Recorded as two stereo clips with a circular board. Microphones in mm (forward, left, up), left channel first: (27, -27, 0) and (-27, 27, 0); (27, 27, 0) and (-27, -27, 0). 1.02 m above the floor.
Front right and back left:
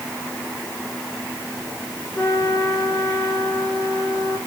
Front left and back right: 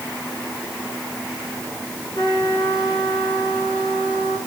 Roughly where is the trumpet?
Ahead.